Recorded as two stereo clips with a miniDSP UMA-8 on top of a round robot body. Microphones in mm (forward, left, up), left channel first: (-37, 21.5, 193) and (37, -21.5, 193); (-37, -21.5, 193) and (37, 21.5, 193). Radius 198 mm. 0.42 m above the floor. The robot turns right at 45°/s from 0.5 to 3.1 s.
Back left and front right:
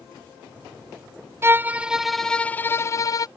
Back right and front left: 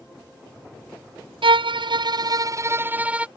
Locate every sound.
1.4 s a violin: 30° left; by 3.3 s 105° left